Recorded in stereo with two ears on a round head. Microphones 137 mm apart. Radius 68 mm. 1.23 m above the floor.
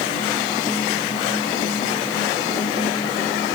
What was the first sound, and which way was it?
Only background noise.